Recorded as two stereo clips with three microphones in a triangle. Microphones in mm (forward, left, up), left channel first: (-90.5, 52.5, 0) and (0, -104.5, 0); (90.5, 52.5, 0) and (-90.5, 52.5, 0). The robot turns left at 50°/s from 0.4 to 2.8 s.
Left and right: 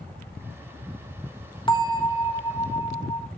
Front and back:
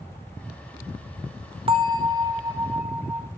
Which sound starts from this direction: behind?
A bell, at 1.7 s.